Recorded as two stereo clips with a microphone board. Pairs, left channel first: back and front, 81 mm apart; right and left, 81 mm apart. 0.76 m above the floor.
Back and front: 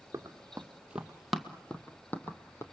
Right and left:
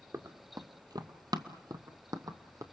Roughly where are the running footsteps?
Ahead left.